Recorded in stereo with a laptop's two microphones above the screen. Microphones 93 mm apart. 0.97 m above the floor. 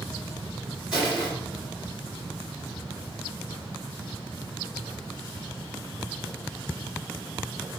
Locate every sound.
0.9 s crushing: 10° right (ahead or behind), 2.5 m